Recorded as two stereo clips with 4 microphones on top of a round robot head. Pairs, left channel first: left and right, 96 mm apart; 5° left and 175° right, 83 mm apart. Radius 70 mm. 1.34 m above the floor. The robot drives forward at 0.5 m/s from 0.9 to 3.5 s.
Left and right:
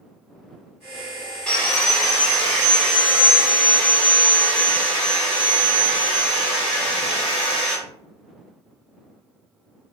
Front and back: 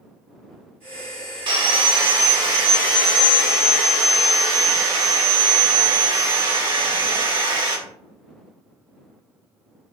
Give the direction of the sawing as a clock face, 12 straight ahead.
6 o'clock.